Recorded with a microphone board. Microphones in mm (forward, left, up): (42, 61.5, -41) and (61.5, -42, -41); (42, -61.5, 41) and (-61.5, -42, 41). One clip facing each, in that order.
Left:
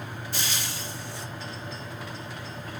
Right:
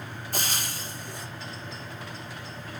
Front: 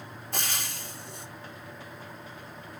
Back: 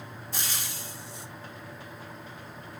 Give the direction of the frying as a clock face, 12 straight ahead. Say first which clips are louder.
Right 3 dB, front 3 dB; 1 o'clock.